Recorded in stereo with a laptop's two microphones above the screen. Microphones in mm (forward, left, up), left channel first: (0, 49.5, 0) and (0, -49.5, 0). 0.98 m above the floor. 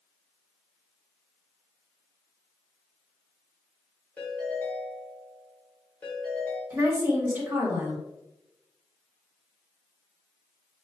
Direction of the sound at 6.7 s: 20° right (ahead or behind).